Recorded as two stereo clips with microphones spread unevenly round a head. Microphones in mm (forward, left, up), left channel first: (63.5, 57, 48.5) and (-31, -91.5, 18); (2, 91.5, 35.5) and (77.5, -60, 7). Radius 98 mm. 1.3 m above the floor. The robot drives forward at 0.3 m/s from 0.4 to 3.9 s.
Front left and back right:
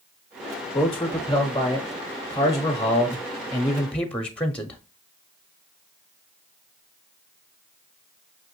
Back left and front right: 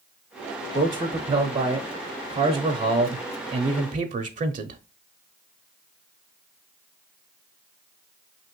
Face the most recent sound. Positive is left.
turn(degrees=-30)